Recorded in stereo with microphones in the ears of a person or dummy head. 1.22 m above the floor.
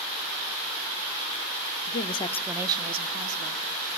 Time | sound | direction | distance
1.9 | a woman speaking | 45° left (ahead or behind) | 0.7 m